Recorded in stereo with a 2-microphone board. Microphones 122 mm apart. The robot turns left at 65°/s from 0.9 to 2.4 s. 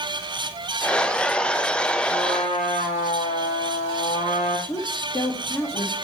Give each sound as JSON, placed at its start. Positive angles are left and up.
{"t": 2.1, "sound": "a trumpet", "side_deg": 65, "distance_m": 5.5}
{"t": 4.7, "sound": "a woman speaking", "side_deg": 25, "distance_m": 2.0}